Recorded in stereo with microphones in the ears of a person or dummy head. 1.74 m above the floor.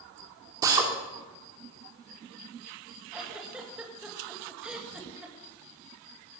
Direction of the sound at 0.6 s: 25° right (ahead or behind).